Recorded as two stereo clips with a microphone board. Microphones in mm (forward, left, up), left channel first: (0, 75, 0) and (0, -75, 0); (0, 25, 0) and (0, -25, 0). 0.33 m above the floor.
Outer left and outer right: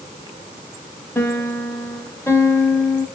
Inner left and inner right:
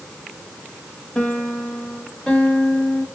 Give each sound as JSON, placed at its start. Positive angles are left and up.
{"t": 1.1, "sound": "a piano", "side_deg": 15, "distance_m": 1.3}